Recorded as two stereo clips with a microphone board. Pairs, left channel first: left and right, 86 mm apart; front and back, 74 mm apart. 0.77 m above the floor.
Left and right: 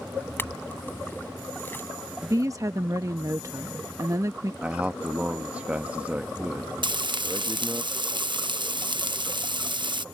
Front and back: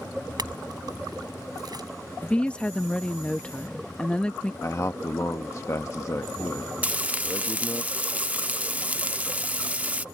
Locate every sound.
0.4 s a clink: 155° left
2.2 s a woman speaking: 70° right
4.6 s a man speaking: 25° right
6.8 s frying: 110° right